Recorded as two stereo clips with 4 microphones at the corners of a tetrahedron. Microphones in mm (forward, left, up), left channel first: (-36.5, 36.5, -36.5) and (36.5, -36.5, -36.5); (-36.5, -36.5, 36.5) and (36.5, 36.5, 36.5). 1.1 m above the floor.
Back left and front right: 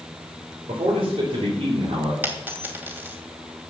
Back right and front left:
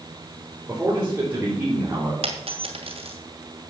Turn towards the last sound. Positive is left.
turn(degrees=25)